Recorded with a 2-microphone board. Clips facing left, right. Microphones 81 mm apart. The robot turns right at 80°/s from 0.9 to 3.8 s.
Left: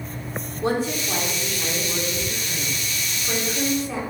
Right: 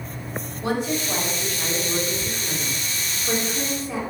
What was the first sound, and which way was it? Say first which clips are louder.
A woman speaking: left 1 dB; 120° left.